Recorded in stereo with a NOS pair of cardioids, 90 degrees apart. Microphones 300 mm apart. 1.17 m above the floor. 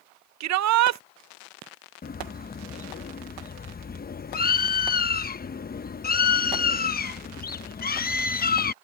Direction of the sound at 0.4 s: 65° right.